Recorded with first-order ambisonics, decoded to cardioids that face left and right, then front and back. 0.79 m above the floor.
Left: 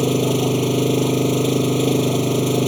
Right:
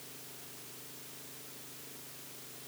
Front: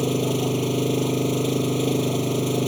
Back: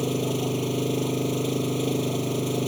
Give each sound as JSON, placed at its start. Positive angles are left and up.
{"t": 0.0, "sound": "an engine running", "azimuth_deg": 80}